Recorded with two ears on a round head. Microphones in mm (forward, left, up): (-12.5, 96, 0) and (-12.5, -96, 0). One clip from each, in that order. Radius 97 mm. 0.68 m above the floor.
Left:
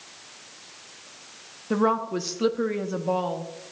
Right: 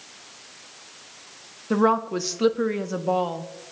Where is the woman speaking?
10° right (ahead or behind), 0.6 m.